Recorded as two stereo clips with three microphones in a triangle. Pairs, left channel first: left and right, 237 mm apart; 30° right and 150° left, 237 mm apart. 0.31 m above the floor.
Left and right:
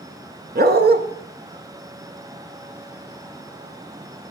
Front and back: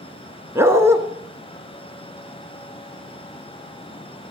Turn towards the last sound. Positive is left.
turn(degrees=-130)